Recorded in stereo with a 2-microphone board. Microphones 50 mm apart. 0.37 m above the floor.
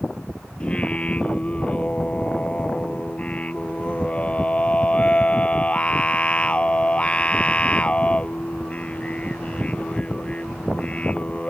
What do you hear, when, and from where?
0.6 s singing: 25° left (ahead or behind)